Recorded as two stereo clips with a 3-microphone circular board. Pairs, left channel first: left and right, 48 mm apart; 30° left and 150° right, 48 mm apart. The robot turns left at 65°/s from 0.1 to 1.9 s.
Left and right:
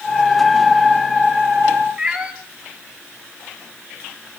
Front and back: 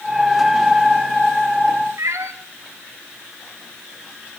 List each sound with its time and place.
2.0 s a cat meowing: 165° right, 2 m